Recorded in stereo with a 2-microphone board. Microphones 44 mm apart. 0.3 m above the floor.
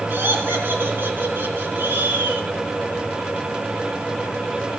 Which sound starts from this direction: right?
Laughter, at 0.1 s.